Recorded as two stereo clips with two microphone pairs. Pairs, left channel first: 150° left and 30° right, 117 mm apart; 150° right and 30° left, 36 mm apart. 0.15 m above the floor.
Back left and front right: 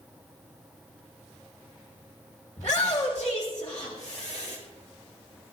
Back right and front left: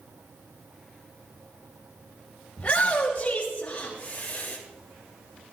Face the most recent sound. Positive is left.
turn(degrees=150)